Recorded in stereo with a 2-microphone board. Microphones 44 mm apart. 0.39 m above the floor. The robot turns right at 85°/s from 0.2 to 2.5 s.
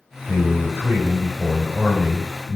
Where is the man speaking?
145° right, 2 m; by 2.6 s 45° left, 2 m.